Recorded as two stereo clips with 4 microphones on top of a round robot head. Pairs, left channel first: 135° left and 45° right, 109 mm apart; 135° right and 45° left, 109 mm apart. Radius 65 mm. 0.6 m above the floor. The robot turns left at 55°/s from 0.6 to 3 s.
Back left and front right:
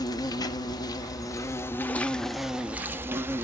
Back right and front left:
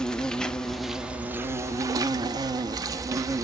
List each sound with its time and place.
0.0 s an insect: 145° left, 1.0 m; by 3.4 s 10° left, 1.0 m